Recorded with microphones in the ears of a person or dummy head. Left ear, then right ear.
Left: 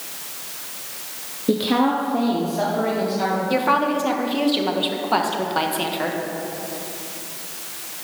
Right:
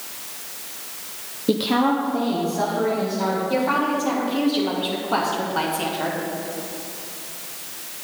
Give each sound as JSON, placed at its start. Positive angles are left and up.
{"t": 1.5, "sound": "a woman speaking", "side_deg": -15, "distance_m": 0.5}
{"t": 3.5, "sound": "a woman speaking", "side_deg": 30, "distance_m": 1.2}